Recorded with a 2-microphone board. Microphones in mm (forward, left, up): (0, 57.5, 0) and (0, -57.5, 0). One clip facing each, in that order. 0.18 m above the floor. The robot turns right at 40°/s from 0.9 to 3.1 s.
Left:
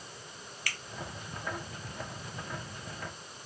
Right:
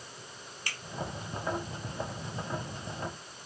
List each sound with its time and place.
0.7 s a finger snap: 25° right (ahead or behind), 0.9 m